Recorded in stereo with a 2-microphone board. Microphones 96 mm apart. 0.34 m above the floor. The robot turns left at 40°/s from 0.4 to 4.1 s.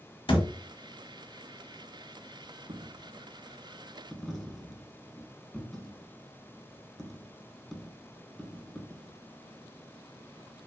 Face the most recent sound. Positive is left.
turn(degrees=5)  # may be behind; listen again after turning